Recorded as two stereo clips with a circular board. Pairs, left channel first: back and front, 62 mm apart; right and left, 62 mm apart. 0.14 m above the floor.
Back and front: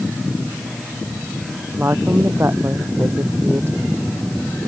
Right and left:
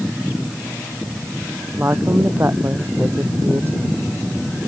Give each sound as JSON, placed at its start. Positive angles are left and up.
{"t": 1.8, "sound": "a woman speaking", "azimuth_deg": 45}